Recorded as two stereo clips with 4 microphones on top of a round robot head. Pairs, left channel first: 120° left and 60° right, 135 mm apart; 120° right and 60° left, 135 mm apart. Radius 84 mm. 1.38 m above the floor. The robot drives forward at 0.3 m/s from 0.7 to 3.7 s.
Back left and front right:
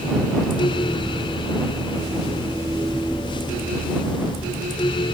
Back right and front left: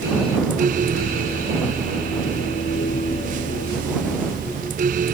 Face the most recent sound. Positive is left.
No sound to turn to.